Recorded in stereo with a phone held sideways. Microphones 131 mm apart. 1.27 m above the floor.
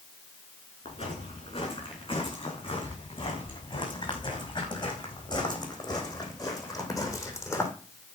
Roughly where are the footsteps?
Left.